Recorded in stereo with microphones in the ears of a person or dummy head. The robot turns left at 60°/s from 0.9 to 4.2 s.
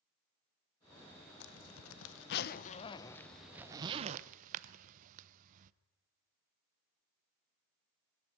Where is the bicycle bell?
No bicycle bell in this recording.